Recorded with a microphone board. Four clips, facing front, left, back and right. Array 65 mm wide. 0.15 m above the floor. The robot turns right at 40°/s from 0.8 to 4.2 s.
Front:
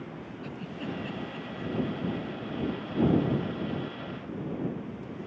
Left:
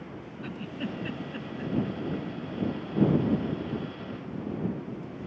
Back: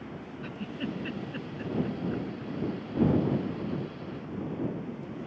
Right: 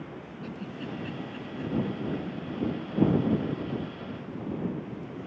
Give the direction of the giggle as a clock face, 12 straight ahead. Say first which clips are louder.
Left 3 dB, back 2 dB; 8 o'clock.